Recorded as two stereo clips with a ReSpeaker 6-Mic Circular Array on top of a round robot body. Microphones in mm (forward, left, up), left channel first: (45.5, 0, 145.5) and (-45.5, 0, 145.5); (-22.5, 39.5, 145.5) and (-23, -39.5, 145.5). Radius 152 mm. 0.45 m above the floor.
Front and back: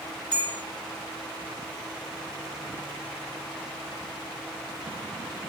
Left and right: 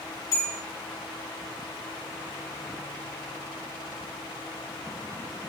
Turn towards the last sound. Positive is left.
turn(degrees=40)